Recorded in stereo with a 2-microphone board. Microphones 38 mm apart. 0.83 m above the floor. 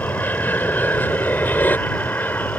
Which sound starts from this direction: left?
An aircraft, at 0.0 s.